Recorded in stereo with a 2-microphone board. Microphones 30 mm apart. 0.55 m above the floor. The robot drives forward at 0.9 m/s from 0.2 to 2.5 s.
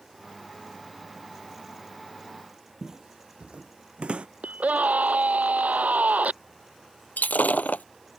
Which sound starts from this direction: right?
A scream, at 4.4 s.